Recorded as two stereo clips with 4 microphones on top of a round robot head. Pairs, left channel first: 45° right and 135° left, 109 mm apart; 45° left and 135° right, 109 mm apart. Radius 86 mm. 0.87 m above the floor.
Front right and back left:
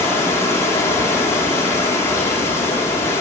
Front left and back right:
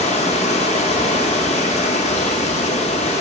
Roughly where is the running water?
Ahead.